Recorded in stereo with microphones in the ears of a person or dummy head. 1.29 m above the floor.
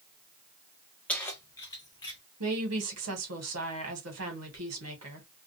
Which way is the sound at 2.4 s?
75° right (ahead or behind).